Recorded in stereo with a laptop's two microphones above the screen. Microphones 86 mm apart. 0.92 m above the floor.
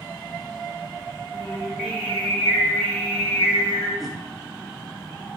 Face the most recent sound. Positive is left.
turn(degrees=0)  # may be behind; listen again after turning